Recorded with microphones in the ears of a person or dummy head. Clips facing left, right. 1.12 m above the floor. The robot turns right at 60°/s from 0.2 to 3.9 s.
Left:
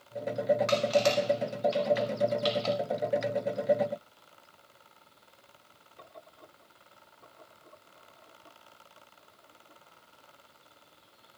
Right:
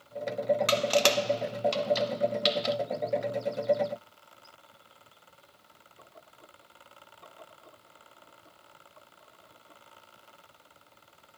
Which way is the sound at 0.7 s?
45° right (ahead or behind).